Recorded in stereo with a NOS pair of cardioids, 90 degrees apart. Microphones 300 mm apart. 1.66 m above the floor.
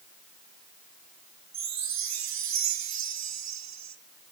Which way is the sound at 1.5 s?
60° right.